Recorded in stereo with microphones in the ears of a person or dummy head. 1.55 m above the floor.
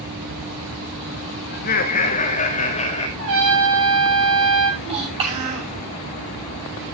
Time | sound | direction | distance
1.5 | laughter | 50° left (ahead or behind) | 2 m
3.2 | a trumpet | 75° right (ahead or behind) | 9 m
4.8 | a child speaking | 30° right (ahead or behind) | 7 m